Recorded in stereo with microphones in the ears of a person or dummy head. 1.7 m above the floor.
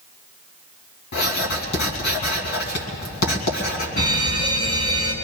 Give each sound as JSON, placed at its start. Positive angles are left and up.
{"t": 1.1, "sound": "writing", "side_deg": 70, "distance_m": 2.0}
{"t": 4.0, "sound": "an alarm", "side_deg": 55, "distance_m": 3.0}